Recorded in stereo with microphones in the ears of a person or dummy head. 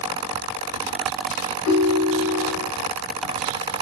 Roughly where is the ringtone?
Left.